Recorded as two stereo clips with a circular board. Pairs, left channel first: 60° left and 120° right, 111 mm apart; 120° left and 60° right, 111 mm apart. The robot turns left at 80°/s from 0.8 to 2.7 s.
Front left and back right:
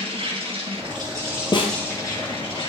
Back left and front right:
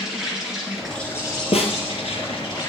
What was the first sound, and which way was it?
An insect, 145° right.